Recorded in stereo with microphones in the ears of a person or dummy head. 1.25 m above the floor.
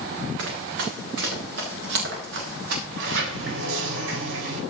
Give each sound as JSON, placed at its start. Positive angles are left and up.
{"t": 0.4, "sound": "running footsteps", "side_deg": -80, "distance_m": 7.0}
{"t": 2.9, "sound": "a sliding door", "side_deg": -80, "distance_m": 4.5}